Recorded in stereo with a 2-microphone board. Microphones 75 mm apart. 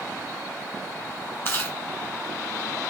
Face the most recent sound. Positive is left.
turn(degrees=35)  # may be behind; listen again after turning